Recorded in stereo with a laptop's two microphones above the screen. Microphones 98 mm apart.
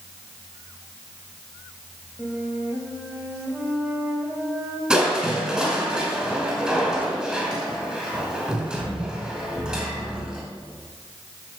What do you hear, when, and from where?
2.2 s a flute: 20° right (ahead or behind), 2.5 m
4.9 s crushing: 10° right (ahead or behind), 4.5 m